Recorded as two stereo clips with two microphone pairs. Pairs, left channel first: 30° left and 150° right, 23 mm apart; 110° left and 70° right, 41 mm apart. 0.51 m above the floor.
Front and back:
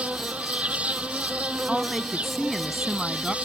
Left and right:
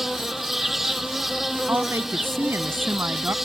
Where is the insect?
155° right.